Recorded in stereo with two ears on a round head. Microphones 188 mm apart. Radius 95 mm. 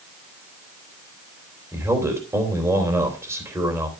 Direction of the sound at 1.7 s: 15° right (ahead or behind).